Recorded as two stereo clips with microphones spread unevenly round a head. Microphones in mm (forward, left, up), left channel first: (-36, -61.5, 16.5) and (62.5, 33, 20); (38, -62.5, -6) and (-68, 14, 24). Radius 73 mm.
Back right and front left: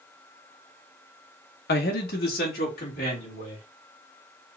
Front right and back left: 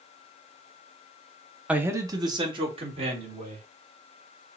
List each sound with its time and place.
1.7 s a man speaking: 145° right, 1.1 m; by 3.7 s 175° right, 3.5 m